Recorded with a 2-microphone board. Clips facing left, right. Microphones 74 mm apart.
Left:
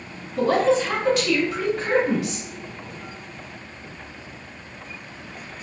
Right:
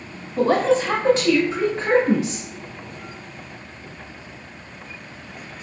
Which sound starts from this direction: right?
A woman speaking, at 0.4 s.